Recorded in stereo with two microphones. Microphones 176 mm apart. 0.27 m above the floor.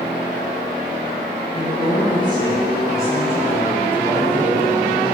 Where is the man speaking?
35° left (ahead or behind), 4.5 m; by 5.0 s 5° left (ahead or behind), 6 m.